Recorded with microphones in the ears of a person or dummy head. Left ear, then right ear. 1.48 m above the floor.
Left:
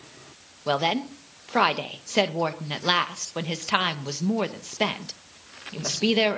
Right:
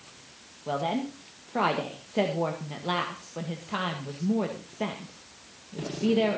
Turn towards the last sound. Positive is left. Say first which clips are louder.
# left 5 dB
turn(degrees=60)  # may be behind; listen again after turning